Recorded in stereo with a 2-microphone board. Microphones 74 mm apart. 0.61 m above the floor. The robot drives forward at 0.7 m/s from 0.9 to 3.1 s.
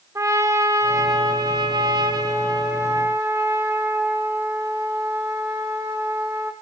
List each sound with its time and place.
0.1 s a trumpet: 45° right (ahead or behind), 1.0 m; by 6.5 s 35° right (ahead or behind), 1.2 m